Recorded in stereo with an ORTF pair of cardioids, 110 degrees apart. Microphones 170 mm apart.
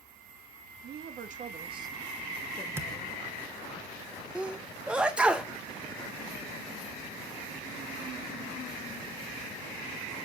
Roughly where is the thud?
Ahead.